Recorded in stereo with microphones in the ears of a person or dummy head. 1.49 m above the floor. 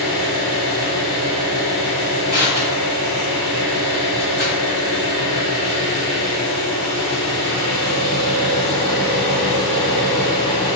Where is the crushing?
35° right (ahead or behind), 1.3 m.